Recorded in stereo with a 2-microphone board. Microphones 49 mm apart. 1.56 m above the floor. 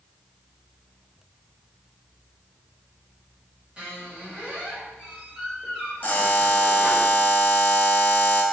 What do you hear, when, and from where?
3.8 s a squeak: 25° right (ahead or behind), 1.1 m
6.0 s a buzzer: 35° left (ahead or behind), 0.7 m